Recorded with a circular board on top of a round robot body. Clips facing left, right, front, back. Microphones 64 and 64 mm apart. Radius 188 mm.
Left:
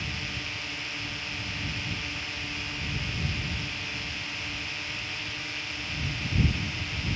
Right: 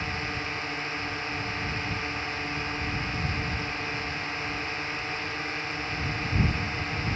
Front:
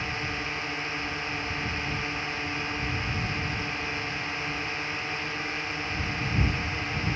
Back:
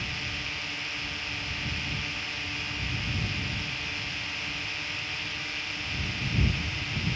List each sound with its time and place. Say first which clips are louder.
0.0 s a drone: right 4 dB, front 4 dB; 50° right